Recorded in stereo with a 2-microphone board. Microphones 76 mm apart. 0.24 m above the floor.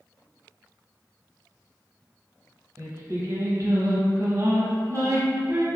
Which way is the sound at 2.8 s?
35° right (ahead or behind).